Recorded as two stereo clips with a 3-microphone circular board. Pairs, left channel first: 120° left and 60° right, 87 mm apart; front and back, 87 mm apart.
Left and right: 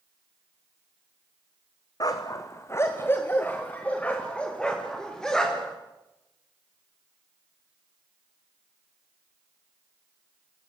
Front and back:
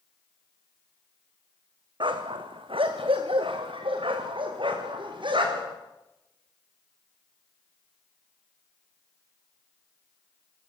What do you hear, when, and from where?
2.0 s a dog barking: 160° left, 2.5 m; by 5.8 s 155° right, 6.5 m